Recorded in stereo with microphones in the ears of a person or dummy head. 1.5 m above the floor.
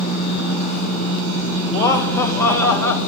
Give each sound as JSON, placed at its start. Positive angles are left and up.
{"t": 1.7, "sound": "laughter", "side_deg": 15, "distance_m": 2.5}